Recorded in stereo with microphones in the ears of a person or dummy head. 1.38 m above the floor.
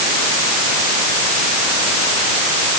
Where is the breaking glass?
I don't hear breaking glass.